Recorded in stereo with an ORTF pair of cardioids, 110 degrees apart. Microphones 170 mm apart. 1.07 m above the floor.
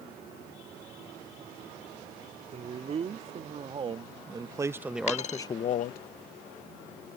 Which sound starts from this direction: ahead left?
A dropped coin, at 5.1 s.